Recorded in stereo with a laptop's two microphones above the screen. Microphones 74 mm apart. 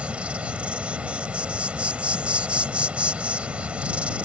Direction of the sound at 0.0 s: 15° right (ahead or behind).